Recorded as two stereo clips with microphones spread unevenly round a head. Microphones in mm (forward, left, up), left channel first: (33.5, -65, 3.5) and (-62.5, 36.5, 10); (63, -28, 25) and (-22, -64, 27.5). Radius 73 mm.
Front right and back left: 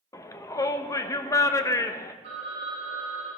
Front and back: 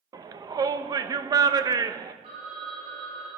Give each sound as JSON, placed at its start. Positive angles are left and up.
{"t": 0.1, "sound": "a shout", "azimuth_deg": -110, "distance_m": 1.1}
{"t": 2.2, "sound": "a phone ringing", "azimuth_deg": 175, "distance_m": 8.0}